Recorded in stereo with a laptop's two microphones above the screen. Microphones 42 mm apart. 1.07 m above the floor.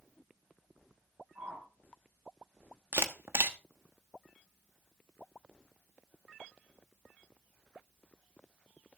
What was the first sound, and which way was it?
A whoosh, 65° right (ahead or behind).